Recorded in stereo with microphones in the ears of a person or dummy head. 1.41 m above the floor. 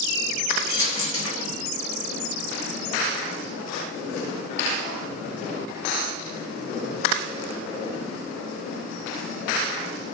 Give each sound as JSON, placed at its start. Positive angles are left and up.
{"t": 0.7, "sound": "a dropped coin", "side_deg": 30, "distance_m": 1.4}